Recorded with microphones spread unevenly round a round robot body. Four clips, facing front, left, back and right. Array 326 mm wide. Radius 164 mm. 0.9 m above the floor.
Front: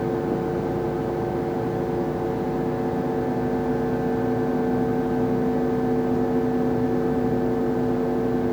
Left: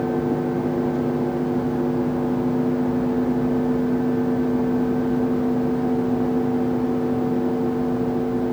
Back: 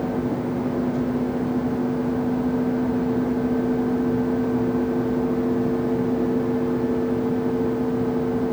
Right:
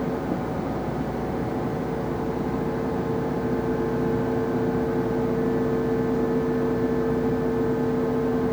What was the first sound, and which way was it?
Only background noise.